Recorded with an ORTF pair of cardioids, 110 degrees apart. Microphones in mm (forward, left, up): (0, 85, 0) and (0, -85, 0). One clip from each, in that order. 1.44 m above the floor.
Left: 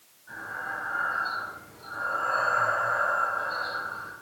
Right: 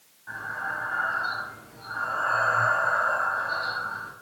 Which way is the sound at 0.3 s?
70° right.